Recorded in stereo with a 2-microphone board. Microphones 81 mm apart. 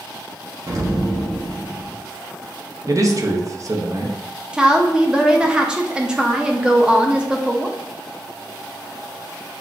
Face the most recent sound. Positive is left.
turn(degrees=-10)  # may be behind; listen again after turning